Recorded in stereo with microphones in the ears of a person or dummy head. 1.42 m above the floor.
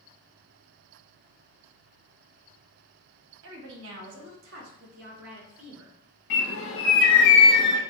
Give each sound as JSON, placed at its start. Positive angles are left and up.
{"t": 3.4, "sound": "a woman speaking", "side_deg": -65, "distance_m": 1.0}
{"t": 6.3, "sound": "a bird", "side_deg": 60, "distance_m": 0.9}